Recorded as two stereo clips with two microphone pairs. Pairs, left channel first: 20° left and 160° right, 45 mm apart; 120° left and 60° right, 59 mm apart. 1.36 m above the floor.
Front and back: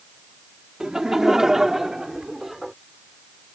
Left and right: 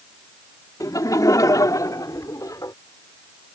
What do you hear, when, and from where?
0.8 s laughter: 125° left; by 2.7 s 115° left